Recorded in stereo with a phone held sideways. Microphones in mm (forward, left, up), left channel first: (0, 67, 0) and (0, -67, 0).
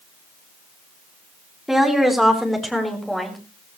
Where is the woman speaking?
Centre (ahead or behind), 3.5 m.